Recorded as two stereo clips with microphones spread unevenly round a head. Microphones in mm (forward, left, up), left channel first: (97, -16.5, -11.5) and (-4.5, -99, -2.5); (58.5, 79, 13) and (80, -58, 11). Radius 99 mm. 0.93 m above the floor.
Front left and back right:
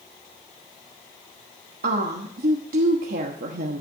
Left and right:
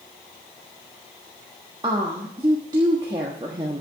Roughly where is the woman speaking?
Behind right.